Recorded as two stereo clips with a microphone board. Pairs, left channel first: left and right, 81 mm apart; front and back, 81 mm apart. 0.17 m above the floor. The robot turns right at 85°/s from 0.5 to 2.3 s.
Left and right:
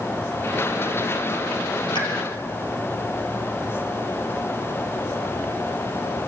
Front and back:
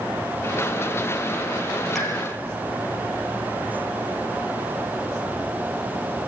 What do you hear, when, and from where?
1.9 s a pop: 90° left, 5 m; by 2.1 s 100° left, 5 m